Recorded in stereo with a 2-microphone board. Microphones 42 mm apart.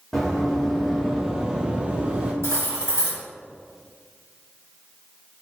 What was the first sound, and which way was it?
Running footsteps, centre (ahead or behind).